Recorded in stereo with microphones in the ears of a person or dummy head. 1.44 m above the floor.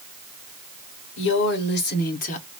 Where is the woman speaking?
70° left (ahead or behind), 1.6 m; by 2.5 s 35° left (ahead or behind), 0.8 m.